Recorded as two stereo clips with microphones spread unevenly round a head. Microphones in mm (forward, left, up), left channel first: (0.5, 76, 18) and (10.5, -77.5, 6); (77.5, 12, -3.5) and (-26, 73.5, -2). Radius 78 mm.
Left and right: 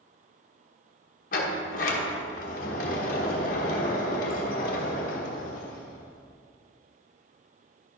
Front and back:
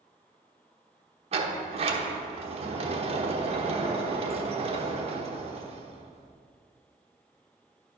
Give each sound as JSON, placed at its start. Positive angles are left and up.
{"t": 1.3, "sound": "a sliding door", "azimuth_deg": 120, "distance_m": 1.1}